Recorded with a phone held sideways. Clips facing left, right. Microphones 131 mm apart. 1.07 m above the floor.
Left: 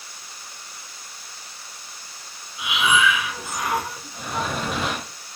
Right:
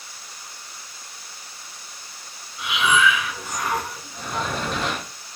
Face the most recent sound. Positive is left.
turn(degrees=5)  # may be behind; listen again after turning